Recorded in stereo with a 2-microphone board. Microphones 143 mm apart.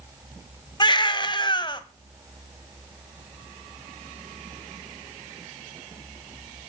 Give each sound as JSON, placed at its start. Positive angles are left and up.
{"t": 0.8, "sound": "a baby crying", "side_deg": 35, "distance_m": 1.4}